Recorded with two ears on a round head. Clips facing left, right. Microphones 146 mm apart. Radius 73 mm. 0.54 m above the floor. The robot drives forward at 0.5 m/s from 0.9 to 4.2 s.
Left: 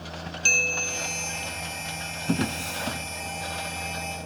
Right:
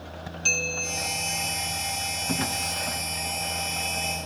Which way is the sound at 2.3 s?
40° left (ahead or behind).